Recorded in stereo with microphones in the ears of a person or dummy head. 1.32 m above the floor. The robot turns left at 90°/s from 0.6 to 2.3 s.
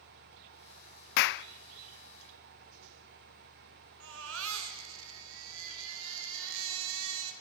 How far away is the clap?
About 0.6 m.